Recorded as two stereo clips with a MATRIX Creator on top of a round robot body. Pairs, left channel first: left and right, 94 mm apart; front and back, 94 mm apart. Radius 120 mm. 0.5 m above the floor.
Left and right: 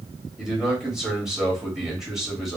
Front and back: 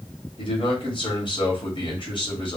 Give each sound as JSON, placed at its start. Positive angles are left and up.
{"t": 0.4, "sound": "a man speaking", "azimuth_deg": -5, "distance_m": 1.7}